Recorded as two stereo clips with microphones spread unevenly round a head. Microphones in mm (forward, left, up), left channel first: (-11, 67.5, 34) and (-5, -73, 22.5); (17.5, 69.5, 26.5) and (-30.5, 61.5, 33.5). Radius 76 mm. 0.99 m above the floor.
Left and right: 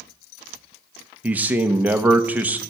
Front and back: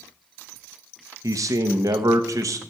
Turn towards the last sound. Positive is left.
turn(degrees=-165)